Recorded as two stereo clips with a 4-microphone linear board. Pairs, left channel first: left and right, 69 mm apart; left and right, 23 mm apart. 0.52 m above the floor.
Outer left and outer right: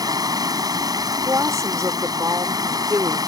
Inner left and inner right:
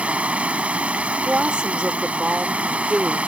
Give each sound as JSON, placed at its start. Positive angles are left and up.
{"t": 0.0, "sound": "running water", "side_deg": -70}
{"t": 1.2, "sound": "a woman speaking", "side_deg": -50}